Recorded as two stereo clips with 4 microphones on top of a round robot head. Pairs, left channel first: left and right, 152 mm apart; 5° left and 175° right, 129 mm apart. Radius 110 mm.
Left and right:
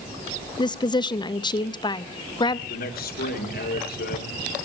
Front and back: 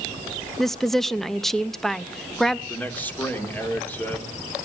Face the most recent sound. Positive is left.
turn(degrees=85)